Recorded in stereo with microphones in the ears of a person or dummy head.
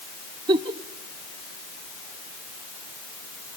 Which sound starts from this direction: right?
A giggle, at 0.5 s.